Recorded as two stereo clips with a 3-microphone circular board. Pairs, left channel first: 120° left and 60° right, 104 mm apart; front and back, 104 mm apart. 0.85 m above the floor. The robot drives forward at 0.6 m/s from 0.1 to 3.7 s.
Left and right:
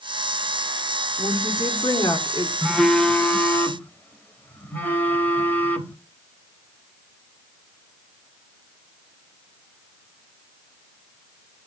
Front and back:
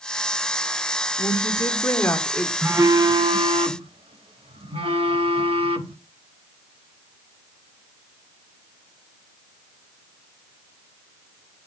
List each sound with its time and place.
1.2 s a woman speaking: 55° left, 2 m; by 2.5 s 80° left, 1.7 m
2.6 s a phone buzzing: 140° right, 0.5 m; by 6.0 s 170° right, 1.0 m